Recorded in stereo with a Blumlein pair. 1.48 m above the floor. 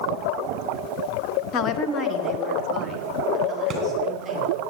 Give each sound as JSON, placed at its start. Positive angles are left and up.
{"t": 1.5, "sound": "a woman speaking", "azimuth_deg": 35, "distance_m": 0.9}
{"t": 3.7, "sound": "a thud", "azimuth_deg": -15, "distance_m": 3.0}